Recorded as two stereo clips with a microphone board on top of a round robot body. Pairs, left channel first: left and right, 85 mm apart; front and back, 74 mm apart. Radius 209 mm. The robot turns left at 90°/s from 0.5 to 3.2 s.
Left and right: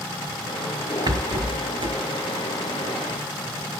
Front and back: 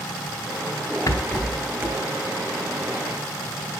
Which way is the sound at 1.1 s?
45° right.